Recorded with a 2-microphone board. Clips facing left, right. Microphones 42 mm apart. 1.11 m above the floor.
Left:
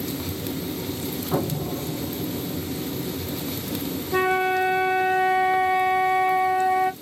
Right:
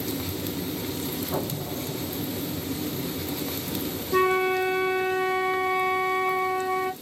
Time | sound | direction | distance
1.3 | an explosion | 45° left (ahead or behind) | 0.8 m
4.1 | a flute | 15° left (ahead or behind) | 0.7 m